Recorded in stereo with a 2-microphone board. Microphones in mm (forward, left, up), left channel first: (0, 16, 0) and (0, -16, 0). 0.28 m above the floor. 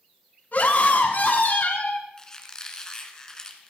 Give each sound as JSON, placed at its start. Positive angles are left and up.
{"t": 0.5, "sound": "a scream", "side_deg": 55, "distance_m": 2.5}
{"t": 2.2, "sound": "a squeak", "side_deg": 20, "distance_m": 2.0}